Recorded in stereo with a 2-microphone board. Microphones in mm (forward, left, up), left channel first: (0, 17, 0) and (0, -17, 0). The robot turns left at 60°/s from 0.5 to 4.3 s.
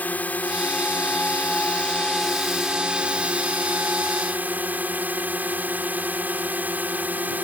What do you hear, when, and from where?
0.0 s a drone: 115° left; by 7.5 s 110° right